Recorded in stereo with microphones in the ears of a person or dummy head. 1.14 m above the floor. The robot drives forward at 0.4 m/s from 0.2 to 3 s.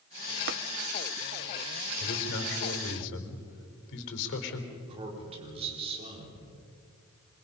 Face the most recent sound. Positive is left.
turn(degrees=-35)  # may be behind; listen again after turning